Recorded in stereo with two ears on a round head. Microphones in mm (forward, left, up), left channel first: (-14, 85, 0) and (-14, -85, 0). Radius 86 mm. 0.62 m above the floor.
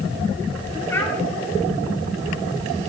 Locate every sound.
0.9 s a child speaking: 15° left (ahead or behind), 1.8 m